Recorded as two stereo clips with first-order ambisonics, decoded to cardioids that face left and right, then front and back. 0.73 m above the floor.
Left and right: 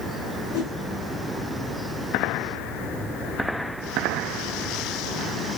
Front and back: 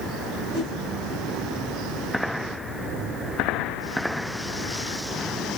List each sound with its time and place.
0.5 s a whoosh: 70° left, 2 m